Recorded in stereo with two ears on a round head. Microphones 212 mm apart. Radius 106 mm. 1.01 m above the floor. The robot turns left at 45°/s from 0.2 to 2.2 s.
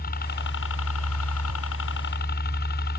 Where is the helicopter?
135° left; by 3.0 s 45° left.